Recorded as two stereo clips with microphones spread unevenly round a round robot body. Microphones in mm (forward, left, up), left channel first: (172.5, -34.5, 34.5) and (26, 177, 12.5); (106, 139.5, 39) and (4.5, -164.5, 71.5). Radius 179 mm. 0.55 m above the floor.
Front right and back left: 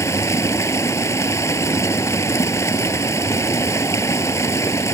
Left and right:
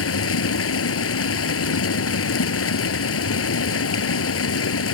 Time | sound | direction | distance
0.0 | running water | 25° left | ?